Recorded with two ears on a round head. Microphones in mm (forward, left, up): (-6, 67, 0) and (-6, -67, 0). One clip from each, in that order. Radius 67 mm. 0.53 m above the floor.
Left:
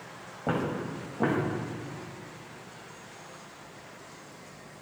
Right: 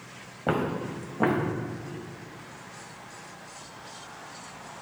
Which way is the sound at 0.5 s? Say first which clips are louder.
Right 3 dB; 60° right (ahead or behind).